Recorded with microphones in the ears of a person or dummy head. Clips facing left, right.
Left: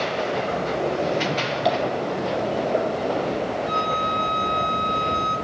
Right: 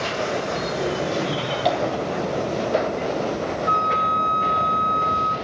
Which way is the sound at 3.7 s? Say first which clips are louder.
Even; centre (ahead or behind).